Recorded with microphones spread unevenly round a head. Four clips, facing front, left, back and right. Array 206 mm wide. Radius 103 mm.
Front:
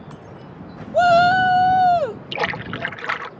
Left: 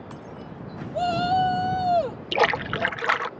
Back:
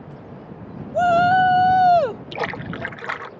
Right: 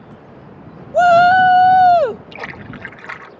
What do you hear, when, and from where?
0.9 s a shout: 60° right; by 2.2 s 90° right
2.3 s a splash: 75° left